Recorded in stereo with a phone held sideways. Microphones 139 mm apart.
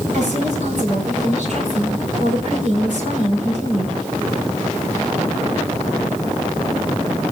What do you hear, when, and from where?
0.1 s a woman speaking: 60° right (ahead or behind), 7 m